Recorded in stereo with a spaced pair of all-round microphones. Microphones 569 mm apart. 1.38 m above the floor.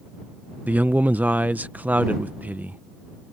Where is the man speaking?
5° right (ahead or behind).